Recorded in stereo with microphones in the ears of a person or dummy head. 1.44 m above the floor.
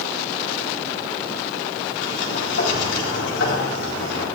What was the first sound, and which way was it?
A sliding door, 75° left (ahead or behind).